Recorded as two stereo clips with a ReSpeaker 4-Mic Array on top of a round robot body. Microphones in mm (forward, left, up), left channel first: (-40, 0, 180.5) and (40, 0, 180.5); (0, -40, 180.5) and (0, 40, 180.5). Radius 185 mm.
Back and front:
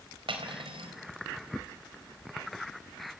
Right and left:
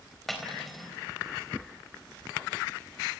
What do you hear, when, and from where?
0.3 s cutlery clinking: straight ahead, 3.5 m